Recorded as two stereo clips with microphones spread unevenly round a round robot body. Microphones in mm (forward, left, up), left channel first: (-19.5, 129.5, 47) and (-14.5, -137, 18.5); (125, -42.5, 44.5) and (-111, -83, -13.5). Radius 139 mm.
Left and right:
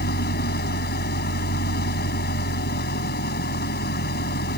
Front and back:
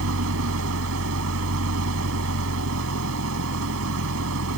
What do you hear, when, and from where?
0.0 s an engine running: 145° left